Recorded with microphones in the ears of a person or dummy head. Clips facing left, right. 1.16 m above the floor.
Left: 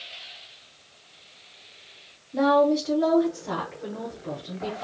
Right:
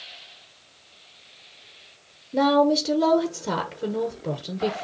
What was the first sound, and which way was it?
A woman speaking, 40° right (ahead or behind).